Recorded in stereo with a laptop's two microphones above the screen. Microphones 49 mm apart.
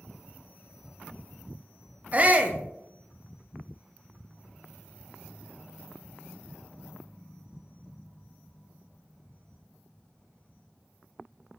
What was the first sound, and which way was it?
A shout, 30° right (ahead or behind).